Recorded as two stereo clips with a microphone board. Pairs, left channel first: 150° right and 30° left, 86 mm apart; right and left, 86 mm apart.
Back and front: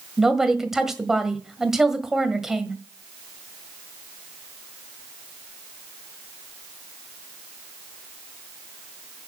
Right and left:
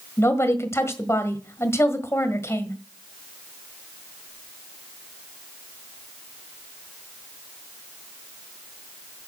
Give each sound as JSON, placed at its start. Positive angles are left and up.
{"t": 0.2, "sound": "a woman speaking", "azimuth_deg": -50, "distance_m": 1.5}